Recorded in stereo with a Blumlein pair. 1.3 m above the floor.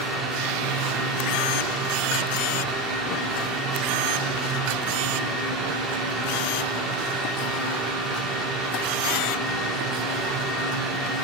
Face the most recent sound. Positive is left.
turn(degrees=-30)